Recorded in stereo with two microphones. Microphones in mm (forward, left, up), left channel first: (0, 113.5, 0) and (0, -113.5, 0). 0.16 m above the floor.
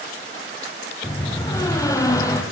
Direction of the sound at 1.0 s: 15° left (ahead or behind).